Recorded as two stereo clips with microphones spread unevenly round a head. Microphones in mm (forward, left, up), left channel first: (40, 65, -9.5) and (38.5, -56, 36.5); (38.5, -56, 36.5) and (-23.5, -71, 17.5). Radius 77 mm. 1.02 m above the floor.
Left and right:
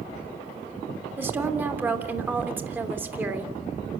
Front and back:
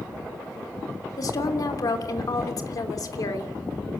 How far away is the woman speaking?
About 3 m.